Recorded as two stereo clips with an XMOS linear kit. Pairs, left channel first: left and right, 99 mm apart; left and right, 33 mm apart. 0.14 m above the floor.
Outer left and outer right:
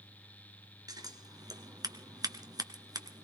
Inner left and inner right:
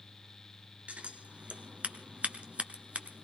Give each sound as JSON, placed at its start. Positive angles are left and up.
{"t": 0.9, "sound": "scissors", "side_deg": -40, "distance_m": 1.4}